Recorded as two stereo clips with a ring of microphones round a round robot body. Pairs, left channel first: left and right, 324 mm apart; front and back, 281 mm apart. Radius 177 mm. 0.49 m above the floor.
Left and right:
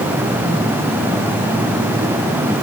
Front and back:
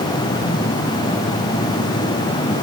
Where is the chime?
No chime in this recording.